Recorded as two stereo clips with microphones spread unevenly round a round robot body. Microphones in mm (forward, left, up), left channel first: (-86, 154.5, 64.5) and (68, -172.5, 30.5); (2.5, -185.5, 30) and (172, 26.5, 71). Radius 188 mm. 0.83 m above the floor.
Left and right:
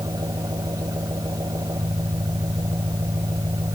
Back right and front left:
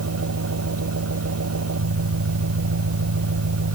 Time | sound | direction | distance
0.0 | an engine running | 15° left | ?